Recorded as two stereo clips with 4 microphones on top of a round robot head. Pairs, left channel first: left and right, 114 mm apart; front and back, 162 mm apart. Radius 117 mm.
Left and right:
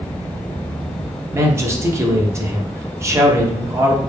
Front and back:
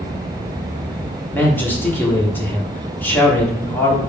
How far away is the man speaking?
About 0.9 m.